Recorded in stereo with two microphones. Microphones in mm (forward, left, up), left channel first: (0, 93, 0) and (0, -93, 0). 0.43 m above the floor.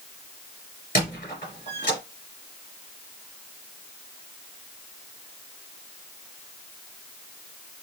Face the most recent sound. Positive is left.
turn(degrees=50)  # may be behind; listen again after turning